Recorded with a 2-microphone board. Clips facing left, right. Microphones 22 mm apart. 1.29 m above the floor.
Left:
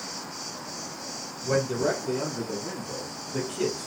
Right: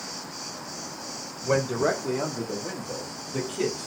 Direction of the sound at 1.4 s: 65° right (ahead or behind).